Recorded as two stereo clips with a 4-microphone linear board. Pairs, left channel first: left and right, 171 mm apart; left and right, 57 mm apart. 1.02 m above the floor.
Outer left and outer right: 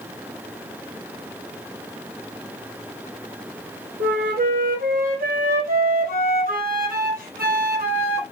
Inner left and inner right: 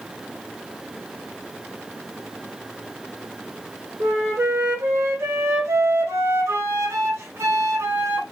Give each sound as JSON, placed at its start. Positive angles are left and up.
{"t": 4.0, "sound": "a flute", "side_deg": -55, "distance_m": 0.9}